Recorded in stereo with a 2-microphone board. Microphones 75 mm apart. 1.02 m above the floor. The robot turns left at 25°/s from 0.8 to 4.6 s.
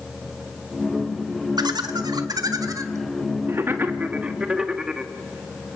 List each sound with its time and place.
1.6 s laughter: 80° right, 1.6 m; by 5.1 s 10° right (ahead or behind), 1.6 m